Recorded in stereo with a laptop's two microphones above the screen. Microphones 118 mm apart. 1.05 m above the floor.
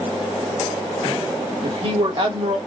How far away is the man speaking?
About 1.6 m.